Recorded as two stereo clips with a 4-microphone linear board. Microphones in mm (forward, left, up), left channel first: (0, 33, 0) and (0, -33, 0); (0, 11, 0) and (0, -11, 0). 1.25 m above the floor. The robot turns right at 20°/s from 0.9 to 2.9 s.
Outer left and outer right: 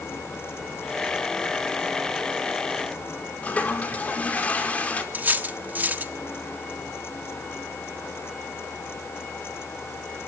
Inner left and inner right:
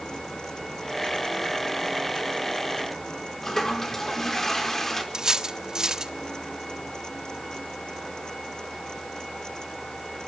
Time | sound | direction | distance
3.4 | a toilet flushing | 20° left (ahead or behind) | 4 m
5.1 | cutlery clinking | 25° right (ahead or behind) | 1.5 m